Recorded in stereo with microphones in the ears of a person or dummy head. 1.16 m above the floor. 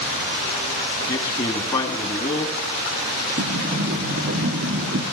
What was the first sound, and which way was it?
A man speaking, 20° left (ahead or behind).